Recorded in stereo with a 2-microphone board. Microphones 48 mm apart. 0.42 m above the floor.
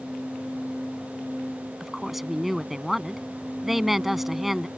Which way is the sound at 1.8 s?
5° right (ahead or behind).